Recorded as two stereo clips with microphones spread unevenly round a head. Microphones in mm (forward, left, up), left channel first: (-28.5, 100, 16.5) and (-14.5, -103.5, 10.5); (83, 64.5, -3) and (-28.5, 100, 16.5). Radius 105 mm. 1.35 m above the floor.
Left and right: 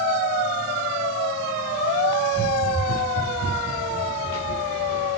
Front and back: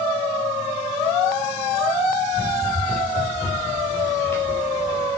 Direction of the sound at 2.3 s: 75° left.